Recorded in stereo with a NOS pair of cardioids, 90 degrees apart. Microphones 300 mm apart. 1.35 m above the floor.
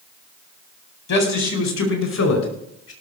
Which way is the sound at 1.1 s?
65° left.